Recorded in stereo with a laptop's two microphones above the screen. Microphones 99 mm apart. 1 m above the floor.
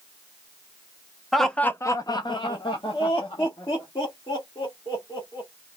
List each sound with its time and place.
1.3 s laughter: centre (ahead or behind), 0.5 m; by 5.5 s 55° left (ahead or behind), 2.5 m